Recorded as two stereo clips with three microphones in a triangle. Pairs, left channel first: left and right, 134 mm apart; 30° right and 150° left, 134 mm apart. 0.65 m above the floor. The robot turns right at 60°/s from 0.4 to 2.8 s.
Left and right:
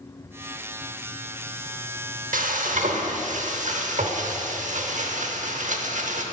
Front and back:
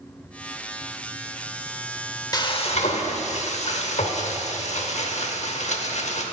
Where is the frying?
90° right, 0.7 m; by 6.2 s 65° right, 0.7 m.